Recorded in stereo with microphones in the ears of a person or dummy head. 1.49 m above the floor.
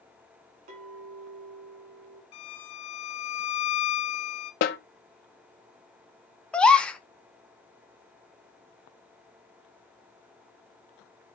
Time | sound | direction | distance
0.7 | a clink | 50° right (ahead or behind) | 1.7 m
2.3 | a violin | 30° left (ahead or behind) | 1.3 m
4.6 | a snare drum | 50° left (ahead or behind) | 0.7 m
6.5 | a gasp | 5° left (ahead or behind) | 0.7 m